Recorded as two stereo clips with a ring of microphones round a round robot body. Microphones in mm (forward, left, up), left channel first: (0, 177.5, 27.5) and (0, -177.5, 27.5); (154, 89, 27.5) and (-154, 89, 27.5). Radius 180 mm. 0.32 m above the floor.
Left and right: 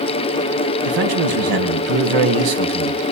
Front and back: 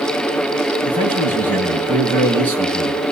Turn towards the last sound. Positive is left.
turn(degrees=-85)